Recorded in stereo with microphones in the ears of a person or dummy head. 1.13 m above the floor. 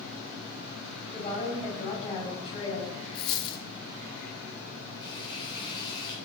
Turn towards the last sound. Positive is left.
turn(degrees=30)  # may be behind; listen again after turning